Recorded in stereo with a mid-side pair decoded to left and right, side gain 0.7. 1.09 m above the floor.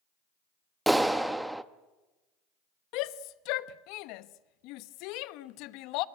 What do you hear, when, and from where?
0.9 s a clap: 5° right, 0.9 m
2.9 s a shout: 65° left, 0.9 m